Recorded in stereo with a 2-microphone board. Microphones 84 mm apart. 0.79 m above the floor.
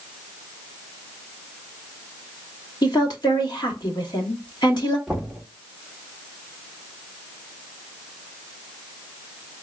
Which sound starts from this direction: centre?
Knocking, at 5.1 s.